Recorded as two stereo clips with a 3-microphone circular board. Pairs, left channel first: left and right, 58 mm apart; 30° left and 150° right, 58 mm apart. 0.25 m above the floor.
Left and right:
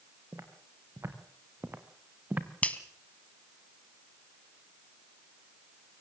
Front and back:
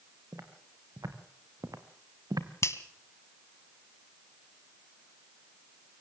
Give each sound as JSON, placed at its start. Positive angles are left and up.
{"t": 0.3, "sound": "footsteps", "azimuth_deg": -125, "distance_m": 4.0}
{"t": 2.6, "sound": "a finger snap", "azimuth_deg": 30, "distance_m": 1.5}